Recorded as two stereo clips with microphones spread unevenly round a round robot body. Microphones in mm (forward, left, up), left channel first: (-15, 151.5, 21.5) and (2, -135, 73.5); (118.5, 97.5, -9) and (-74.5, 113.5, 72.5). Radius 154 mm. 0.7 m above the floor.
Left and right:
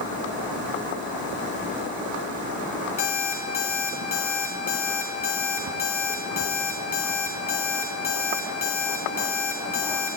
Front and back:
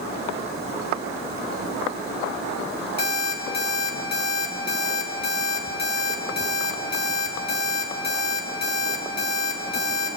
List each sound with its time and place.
3.0 s an alarm clock: 25° left, 4 m